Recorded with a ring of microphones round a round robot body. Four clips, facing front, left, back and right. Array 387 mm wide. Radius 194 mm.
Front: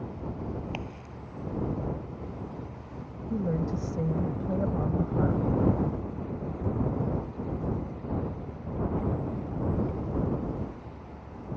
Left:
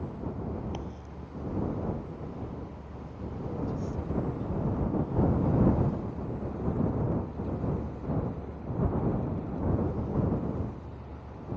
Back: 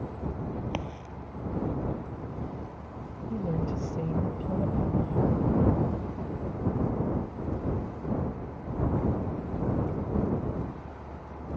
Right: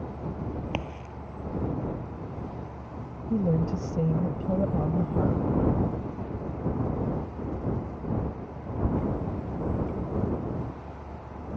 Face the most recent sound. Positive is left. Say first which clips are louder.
# right 9 dB, front 2 dB
turn(degrees=-75)